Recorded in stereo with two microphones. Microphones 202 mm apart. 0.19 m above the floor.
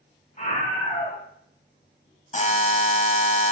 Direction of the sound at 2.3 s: 35° left (ahead or behind).